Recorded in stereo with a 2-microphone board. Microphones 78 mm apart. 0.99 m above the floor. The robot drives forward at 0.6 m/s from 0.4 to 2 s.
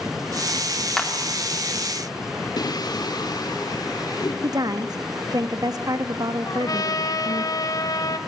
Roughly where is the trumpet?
Left.